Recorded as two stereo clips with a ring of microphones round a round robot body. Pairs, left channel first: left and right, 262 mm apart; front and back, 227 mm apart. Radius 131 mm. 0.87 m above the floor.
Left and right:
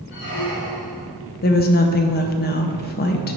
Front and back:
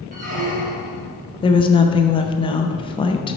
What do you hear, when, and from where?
0.1 s a squeak: 135° left, 1.5 m
1.4 s a woman speaking: 60° left, 0.6 m